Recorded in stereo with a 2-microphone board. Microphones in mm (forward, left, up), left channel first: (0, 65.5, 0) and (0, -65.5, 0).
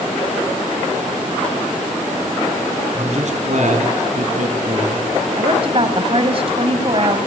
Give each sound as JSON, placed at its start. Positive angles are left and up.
{"t": 2.9, "sound": "a man speaking", "side_deg": -50, "distance_m": 2.5}
{"t": 5.4, "sound": "a woman speaking", "side_deg": -45, "distance_m": 2.0}